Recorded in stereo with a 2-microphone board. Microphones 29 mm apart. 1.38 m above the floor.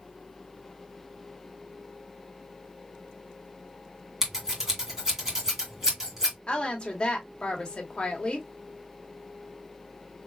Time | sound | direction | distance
4.2 | scissors | 15° right (ahead or behind) | 2 m
6.5 | a woman speaking | 35° left (ahead or behind) | 1.7 m